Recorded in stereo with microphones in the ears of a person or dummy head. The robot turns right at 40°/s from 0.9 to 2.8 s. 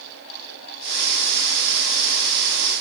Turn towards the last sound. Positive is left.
No sound to turn to.